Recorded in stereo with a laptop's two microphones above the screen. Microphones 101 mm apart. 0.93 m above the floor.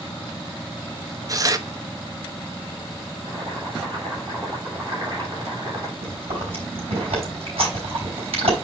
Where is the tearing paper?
35° right (ahead or behind), 0.8 m.